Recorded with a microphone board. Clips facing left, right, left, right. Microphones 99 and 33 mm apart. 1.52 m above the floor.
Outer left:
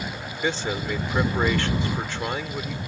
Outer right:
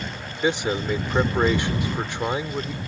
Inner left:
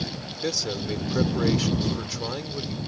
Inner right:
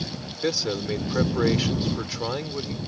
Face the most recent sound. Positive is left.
turn(degrees=-15)  # may be behind; listen again after turning